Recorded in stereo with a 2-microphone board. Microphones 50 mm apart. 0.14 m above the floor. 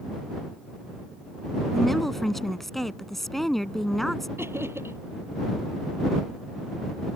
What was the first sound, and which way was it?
A woman speaking, 5° left (ahead or behind).